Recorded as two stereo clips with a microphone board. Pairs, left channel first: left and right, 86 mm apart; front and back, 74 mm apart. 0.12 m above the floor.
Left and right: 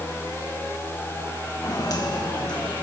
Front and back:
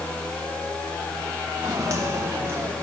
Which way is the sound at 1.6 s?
135° left.